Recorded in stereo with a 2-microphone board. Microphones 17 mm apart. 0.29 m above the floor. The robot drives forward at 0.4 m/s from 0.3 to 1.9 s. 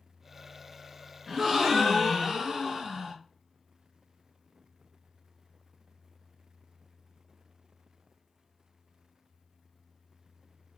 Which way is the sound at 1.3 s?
20° right (ahead or behind).